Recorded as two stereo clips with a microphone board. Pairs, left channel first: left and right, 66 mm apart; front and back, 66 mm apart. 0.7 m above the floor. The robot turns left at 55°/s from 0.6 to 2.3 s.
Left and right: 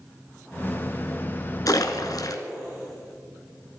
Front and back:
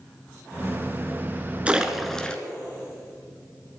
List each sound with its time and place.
1.7 s a splash: 110° left, 1.4 m; by 2.4 s 75° left, 1.4 m